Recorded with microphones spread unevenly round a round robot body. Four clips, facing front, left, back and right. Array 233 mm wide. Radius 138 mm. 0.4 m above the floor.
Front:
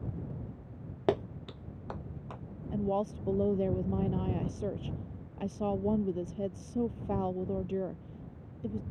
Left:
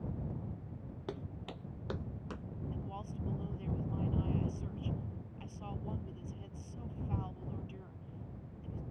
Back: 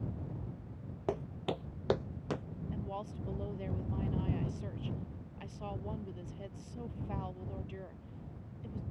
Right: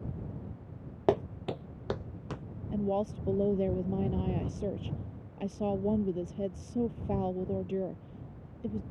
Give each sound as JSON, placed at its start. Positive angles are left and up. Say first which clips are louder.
{"t": 1.1, "sound": "footsteps", "louder": "right 16 dB, front 5 dB", "azimuth_deg": -65}
{"t": 2.7, "sound": "a woman speaking", "louder": "right 19 dB, front 12 dB", "azimuth_deg": -50}